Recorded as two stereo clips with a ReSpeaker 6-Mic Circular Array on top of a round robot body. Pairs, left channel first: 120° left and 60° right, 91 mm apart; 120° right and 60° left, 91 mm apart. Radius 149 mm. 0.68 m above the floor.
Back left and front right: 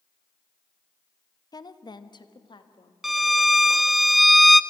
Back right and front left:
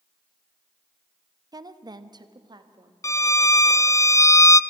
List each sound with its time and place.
1.5 s a woman speaking: 90° left, 1.0 m; by 2.9 s 95° left, 1.7 m
3.0 s a violin: 150° right, 0.7 m